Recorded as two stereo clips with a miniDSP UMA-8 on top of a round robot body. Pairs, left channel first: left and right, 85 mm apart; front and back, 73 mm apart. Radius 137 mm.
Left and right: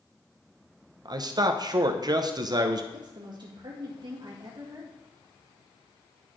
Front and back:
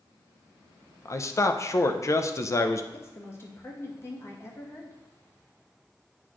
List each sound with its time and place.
1.1 s a man speaking: 50° right, 0.7 m
2.9 s a woman speaking: 55° right, 1.5 m